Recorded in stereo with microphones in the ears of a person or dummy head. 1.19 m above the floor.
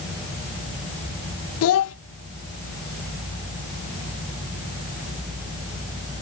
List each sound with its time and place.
1.6 s a child speaking: 80° left, 0.6 m